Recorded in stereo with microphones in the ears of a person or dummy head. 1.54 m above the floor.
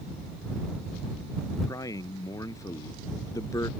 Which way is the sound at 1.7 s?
15° left (ahead or behind).